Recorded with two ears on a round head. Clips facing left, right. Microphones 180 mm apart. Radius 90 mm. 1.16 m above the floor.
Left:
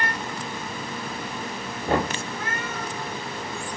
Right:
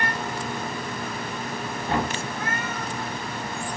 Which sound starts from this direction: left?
Knocking, at 1.9 s.